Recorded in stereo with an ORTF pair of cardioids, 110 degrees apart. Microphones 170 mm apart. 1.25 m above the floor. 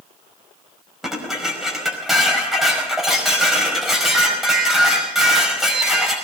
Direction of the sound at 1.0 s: Straight ahead.